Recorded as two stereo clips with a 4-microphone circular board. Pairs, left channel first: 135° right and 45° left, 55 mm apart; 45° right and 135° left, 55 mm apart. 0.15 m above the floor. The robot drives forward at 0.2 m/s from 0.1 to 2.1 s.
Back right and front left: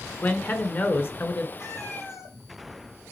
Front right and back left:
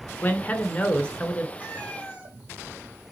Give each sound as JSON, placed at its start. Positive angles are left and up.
{"t": 0.2, "sound": "a man speaking", "azimuth_deg": -95, "distance_m": 1.4}
{"t": 1.6, "sound": "a cat meowing", "azimuth_deg": -160, "distance_m": 4.0}